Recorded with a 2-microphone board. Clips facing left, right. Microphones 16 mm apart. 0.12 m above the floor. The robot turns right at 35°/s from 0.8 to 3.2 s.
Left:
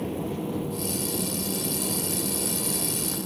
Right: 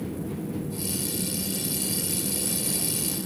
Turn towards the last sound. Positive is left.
turn(degrees=40)  # may be behind; listen again after turning